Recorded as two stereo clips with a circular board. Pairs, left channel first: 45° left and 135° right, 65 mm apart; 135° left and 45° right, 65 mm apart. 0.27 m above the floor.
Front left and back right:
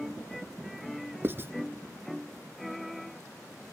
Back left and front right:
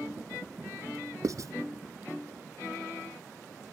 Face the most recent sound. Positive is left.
turn(degrees=-80)